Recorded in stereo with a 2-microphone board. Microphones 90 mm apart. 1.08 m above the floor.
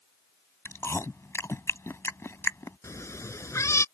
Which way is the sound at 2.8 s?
35° left (ahead or behind).